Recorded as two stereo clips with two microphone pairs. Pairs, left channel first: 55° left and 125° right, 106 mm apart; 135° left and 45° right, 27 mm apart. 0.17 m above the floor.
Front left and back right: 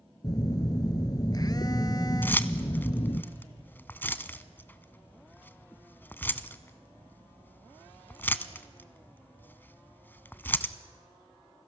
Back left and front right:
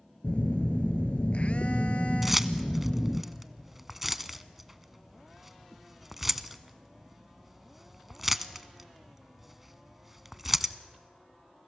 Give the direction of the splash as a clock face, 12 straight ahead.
I don't hear a splash.